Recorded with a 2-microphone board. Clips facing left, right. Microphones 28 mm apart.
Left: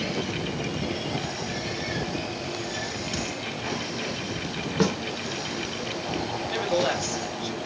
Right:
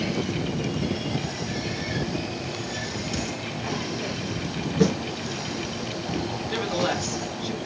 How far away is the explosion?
About 5.5 m.